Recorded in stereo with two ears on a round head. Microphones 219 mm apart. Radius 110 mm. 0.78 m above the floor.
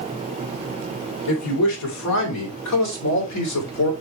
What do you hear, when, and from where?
1.3 s a man speaking: 75° left (ahead or behind), 4 m; by 3.9 s 70° left (ahead or behind), 2.5 m